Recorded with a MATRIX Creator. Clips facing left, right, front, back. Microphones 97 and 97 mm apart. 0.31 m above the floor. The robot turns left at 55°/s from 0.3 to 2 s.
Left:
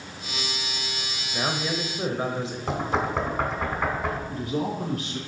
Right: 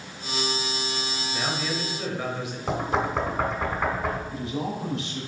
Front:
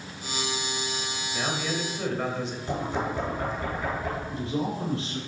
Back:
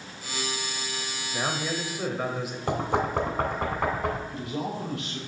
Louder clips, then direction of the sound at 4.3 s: Left 2 dB, front 3 dB; 55° left.